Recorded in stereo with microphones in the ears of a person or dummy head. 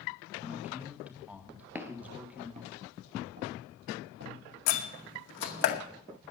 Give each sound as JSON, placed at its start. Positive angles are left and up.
{"t": 0.4, "sound": "a man speaking", "side_deg": -10, "distance_m": 1.7}
{"t": 1.8, "sound": "footsteps", "side_deg": -15, "distance_m": 1.5}
{"t": 4.7, "sound": "a door slam", "side_deg": 60, "distance_m": 2.0}